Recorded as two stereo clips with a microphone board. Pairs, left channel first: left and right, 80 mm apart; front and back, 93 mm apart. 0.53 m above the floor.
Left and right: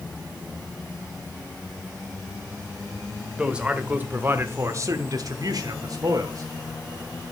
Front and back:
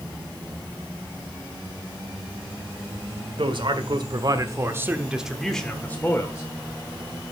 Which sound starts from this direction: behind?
A man speaking, at 3.4 s.